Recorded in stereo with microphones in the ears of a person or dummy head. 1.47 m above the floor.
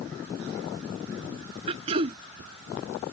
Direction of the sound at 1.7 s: 30° right (ahead or behind).